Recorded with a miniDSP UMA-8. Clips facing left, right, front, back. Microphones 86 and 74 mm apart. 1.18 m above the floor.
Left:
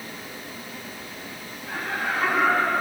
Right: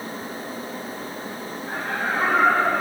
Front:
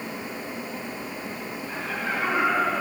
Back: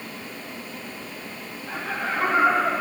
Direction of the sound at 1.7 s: 150° right.